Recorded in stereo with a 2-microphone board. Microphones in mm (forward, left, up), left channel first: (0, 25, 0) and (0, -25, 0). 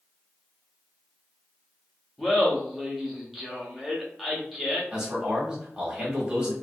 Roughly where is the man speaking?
Centre.